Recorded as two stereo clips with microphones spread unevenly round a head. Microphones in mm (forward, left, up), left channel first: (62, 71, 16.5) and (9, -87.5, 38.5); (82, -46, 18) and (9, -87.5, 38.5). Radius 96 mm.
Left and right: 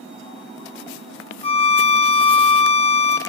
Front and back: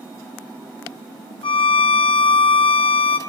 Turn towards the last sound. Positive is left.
turn(degrees=15)